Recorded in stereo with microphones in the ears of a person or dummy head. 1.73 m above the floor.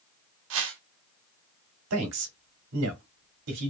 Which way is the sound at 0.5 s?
75° right (ahead or behind).